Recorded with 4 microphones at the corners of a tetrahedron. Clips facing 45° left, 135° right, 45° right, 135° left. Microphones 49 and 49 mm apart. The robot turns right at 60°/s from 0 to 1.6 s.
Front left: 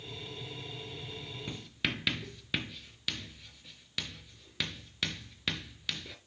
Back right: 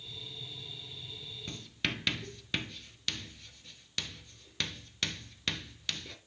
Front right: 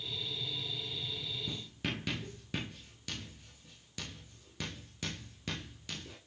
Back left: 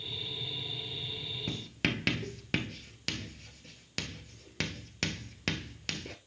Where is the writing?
120° left, 0.8 m; by 6.2 s 130° left, 0.8 m.